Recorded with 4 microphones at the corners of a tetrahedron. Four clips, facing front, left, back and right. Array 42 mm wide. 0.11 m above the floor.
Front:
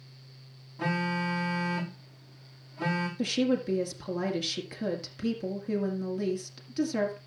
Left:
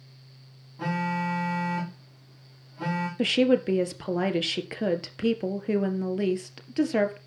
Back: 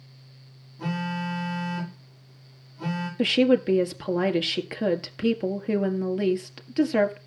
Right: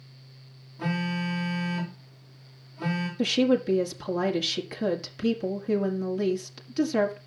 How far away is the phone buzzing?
About 7 m.